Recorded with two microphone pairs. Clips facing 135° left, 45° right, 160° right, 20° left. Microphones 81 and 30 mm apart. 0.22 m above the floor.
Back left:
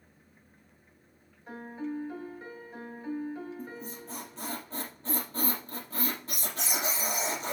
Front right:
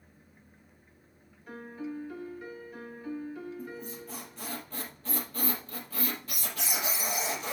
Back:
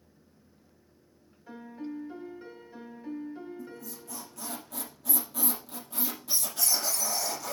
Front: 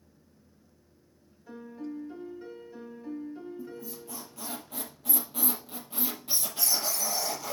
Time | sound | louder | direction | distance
1.5 | a piano | back left 2 dB, even | 140° left | 1.5 m
3.6 | a squeak | front right 1 dB, front 2 dB | 80° left | 3.5 m